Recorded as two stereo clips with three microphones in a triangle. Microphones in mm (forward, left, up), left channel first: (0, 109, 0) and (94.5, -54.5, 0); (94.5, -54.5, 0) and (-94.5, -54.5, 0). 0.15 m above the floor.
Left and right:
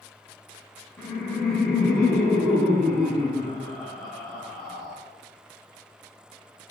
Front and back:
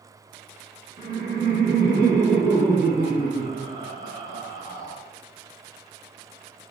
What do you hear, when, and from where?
1.0 s laughter: 155° right, 1.3 m